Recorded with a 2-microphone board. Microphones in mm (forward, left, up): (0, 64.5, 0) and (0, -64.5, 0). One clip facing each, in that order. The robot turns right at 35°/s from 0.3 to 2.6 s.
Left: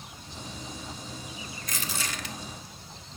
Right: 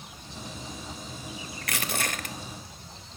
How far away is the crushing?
About 0.7 m.